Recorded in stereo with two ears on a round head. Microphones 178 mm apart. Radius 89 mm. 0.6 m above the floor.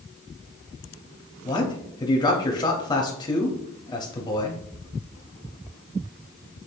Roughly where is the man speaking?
Left.